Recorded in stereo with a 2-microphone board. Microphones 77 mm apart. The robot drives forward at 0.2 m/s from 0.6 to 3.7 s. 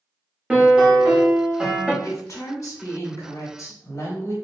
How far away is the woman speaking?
About 1.2 m.